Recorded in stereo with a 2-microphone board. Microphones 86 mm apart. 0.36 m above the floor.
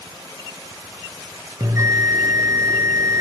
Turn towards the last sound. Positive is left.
turn(degrees=-35)  # may be behind; listen again after turning